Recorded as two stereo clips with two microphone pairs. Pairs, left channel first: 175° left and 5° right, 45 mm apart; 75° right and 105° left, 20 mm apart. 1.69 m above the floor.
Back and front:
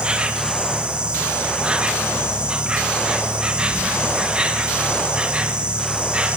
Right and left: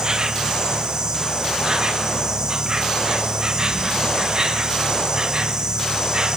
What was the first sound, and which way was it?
An insect, 60° left.